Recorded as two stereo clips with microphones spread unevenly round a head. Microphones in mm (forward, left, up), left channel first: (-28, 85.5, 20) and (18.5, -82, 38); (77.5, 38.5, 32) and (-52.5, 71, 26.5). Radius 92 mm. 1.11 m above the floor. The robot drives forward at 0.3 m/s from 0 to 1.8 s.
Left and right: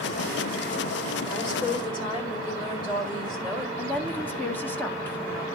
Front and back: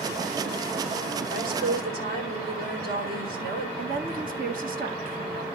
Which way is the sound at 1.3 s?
170° left.